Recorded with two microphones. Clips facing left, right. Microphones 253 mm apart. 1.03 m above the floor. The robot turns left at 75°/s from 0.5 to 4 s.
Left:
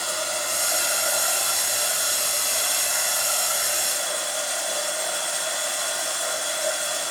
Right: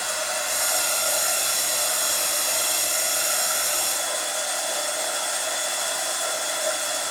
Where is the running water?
45° left, 3 m; by 7.1 s 145° left, 3 m.